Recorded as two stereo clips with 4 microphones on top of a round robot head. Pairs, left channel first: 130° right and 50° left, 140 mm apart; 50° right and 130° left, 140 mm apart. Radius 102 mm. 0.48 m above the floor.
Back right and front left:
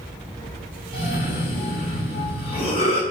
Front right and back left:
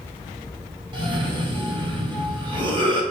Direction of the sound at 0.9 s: 175° right.